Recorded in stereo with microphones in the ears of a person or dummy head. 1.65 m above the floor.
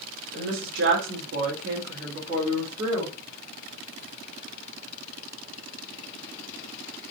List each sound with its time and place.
0.3 s a woman speaking: 80° right, 1.3 m; by 3.1 s 30° right (ahead or behind), 2 m